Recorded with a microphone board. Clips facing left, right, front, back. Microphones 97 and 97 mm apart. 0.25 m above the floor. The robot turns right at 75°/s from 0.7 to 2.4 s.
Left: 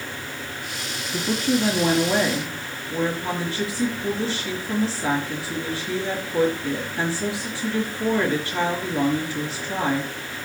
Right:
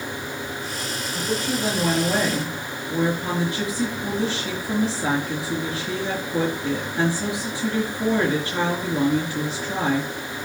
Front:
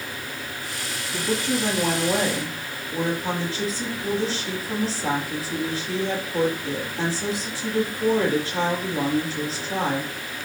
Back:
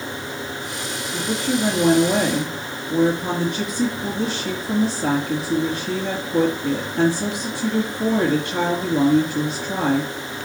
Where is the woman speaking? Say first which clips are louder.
Left 4 dB, back 2 dB; 105° left, 3.5 m; by 10.1 s 160° right, 3.5 m.